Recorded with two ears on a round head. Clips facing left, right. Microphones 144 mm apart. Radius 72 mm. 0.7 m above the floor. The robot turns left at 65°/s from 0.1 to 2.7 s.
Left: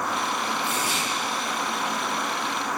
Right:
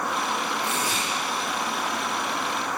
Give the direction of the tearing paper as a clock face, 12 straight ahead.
2 o'clock.